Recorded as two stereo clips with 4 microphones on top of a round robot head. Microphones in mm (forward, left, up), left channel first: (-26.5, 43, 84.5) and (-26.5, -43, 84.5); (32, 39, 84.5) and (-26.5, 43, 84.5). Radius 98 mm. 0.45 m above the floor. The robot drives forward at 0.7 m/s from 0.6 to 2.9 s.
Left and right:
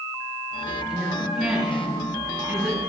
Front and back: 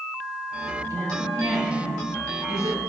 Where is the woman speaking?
Straight behind, 2.5 m.